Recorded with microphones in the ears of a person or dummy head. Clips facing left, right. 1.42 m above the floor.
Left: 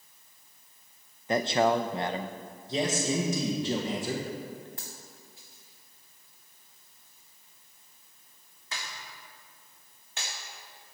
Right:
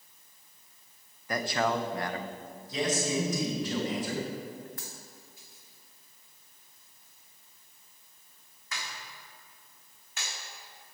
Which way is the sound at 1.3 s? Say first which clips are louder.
Left 5 dB; 25° left (ahead or behind).